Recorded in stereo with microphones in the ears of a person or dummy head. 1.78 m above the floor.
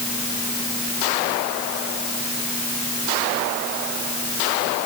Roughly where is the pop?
No pop in this recording.